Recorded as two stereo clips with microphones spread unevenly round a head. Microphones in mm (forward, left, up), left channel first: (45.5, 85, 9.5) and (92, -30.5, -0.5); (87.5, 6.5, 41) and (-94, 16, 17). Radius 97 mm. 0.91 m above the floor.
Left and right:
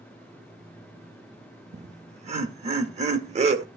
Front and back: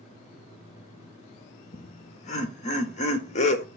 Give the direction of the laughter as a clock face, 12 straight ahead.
2 o'clock.